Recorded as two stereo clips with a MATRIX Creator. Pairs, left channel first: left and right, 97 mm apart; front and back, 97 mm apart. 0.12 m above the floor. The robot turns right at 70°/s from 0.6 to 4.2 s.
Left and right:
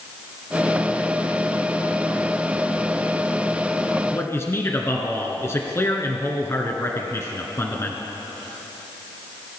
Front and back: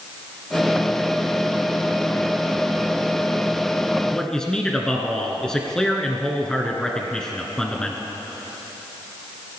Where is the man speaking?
70° left, 1.5 m; by 8.0 s 75° left, 1.5 m.